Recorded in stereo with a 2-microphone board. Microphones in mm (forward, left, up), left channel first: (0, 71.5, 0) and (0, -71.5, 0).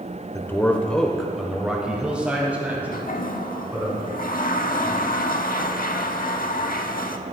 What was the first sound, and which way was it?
A man speaking, 15° left (ahead or behind).